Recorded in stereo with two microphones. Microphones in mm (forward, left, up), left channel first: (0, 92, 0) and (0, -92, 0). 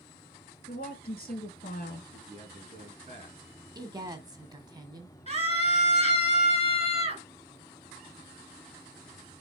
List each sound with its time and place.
0.7 s a woman speaking: 55° left (ahead or behind), 1.8 m
2.1 s a man speaking: 35° right (ahead or behind), 4 m
3.8 s a woman speaking: 20° right (ahead or behind), 1.3 m
5.3 s a scream: 35° right (ahead or behind), 2.5 m